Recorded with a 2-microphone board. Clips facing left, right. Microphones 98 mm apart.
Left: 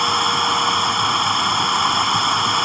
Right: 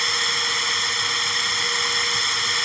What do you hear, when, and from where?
0.0 s running water: 50° left (ahead or behind)